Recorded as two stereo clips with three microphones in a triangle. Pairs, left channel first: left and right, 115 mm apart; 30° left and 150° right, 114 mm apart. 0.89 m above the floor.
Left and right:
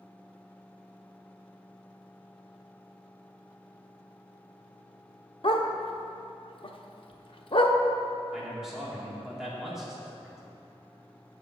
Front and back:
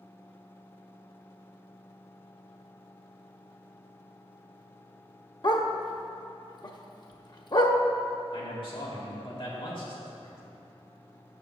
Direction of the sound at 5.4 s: 70° left.